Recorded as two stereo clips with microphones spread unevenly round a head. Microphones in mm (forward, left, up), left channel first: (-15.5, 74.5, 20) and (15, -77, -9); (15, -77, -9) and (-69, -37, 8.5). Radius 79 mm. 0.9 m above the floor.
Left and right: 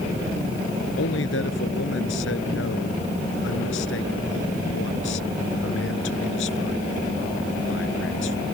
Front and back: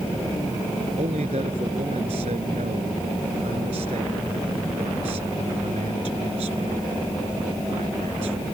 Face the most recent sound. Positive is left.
turn(degrees=110)